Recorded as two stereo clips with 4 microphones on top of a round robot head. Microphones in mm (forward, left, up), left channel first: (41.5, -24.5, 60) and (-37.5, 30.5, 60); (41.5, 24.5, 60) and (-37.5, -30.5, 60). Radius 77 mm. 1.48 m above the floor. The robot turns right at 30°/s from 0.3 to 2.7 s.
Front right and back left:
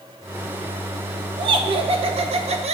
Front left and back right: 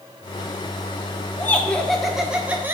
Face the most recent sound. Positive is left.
turn(degrees=145)